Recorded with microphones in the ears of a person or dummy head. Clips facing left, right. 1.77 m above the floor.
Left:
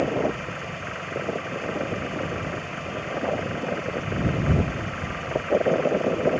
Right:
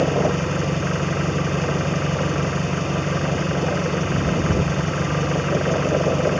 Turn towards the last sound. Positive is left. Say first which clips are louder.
# right 5 dB
turn(degrees=-65)  # may be behind; listen again after turning